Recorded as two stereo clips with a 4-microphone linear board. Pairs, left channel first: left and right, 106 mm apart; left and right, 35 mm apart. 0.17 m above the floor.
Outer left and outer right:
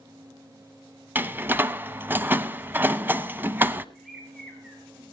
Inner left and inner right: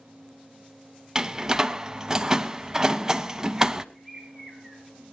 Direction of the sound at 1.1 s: 20° right (ahead or behind).